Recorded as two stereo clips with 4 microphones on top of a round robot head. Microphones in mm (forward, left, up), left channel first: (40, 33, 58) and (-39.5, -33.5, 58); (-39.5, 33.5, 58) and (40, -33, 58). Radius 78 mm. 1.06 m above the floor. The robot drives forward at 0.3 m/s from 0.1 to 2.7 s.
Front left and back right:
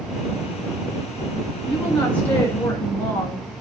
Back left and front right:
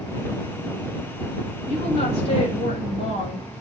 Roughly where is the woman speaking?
Behind left.